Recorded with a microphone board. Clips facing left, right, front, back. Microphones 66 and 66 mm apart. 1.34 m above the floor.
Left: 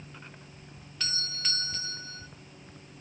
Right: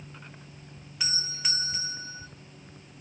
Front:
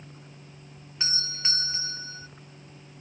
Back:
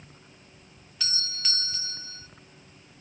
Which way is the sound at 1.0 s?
25° right.